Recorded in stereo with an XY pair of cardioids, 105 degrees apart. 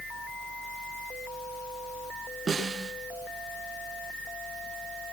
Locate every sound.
0.0 s a fan: 45° left, 1.0 m
2.5 s a snare drum: 35° right, 4.5 m